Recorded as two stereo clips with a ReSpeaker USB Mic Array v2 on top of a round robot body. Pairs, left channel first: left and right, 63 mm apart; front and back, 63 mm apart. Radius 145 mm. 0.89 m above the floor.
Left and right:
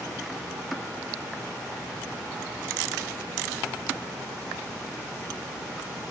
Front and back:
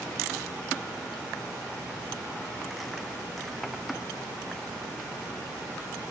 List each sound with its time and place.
Only background noise.